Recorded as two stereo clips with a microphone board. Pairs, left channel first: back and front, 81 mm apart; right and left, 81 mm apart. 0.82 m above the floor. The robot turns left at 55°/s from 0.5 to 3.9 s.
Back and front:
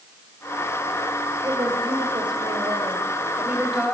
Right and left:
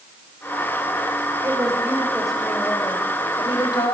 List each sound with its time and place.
1.4 s a woman speaking: 45° left, 3.5 m; by 4.0 s 90° right, 3.5 m